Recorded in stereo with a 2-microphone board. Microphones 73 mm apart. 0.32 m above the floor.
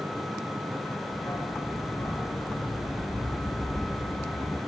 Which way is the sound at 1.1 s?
50° left (ahead or behind).